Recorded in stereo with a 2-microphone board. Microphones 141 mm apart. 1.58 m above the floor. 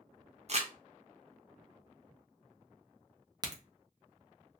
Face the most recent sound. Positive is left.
turn(degrees=-30)  # may be behind; listen again after turning